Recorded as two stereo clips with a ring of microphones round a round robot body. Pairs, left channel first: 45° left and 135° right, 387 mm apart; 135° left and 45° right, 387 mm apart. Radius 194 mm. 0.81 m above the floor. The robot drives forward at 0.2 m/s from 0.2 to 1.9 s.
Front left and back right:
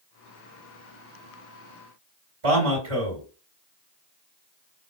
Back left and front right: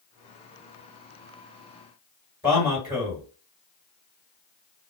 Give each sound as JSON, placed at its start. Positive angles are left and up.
{"t": 2.4, "sound": "a man speaking", "azimuth_deg": -150, "distance_m": 1.7}